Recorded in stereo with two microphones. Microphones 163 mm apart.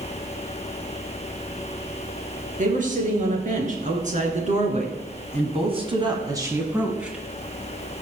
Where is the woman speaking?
55° right (ahead or behind), 3.5 m; by 7.2 s 5° right (ahead or behind), 1.7 m.